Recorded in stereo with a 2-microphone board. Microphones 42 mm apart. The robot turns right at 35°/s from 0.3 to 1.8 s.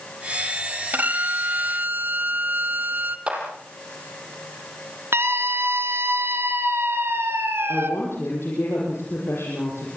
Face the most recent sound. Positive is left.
turn(degrees=75)  # may be behind; listen again after turning